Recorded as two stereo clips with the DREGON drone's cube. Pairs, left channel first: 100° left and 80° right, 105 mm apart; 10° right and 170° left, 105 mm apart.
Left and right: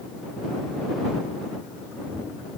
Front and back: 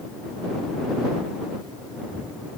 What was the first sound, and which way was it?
Only background noise.